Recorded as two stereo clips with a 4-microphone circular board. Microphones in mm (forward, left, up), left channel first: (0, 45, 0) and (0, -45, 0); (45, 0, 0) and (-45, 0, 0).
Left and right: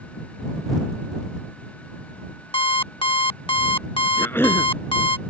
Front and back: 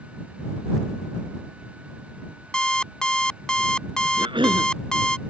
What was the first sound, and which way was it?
An alarm clock, 80° left.